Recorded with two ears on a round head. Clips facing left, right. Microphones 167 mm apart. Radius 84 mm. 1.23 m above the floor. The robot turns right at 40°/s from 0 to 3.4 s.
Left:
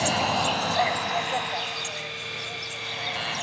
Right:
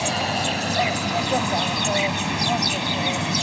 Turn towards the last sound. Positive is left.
turn(degrees=-45)